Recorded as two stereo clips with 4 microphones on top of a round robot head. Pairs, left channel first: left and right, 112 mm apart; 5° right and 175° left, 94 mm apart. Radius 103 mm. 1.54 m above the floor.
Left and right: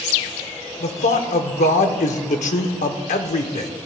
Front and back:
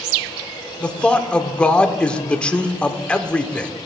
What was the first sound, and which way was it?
A man speaking, 75° left.